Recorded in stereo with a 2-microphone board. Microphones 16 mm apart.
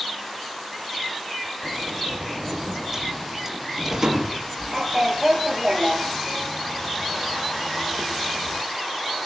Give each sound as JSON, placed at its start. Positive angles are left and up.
{"t": 1.6, "sound": "a sliding door", "side_deg": -30, "distance_m": 5.0}